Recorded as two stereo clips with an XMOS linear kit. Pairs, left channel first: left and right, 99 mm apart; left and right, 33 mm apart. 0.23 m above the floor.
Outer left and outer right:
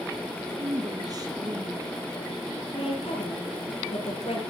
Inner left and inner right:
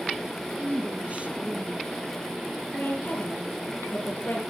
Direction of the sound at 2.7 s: 75° left (ahead or behind).